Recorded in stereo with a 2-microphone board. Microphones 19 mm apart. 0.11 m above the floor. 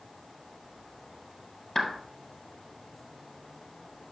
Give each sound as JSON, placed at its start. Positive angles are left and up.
{"t": 1.8, "sound": "a clap", "side_deg": 30, "distance_m": 1.4}